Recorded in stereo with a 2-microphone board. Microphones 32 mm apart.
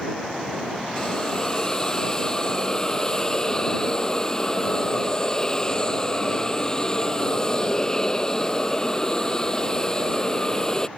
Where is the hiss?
20° left (ahead or behind).